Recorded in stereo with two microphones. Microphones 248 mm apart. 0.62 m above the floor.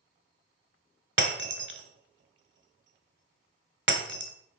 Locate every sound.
1.2 s breaking glass: 50° right (ahead or behind), 1.3 m